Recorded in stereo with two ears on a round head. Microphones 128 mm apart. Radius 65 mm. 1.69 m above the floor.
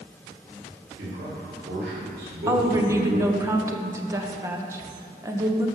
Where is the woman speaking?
20° right (ahead or behind), 1.2 m.